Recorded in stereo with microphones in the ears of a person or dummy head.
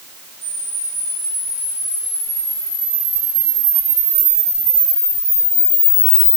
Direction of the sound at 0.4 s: 55° left (ahead or behind).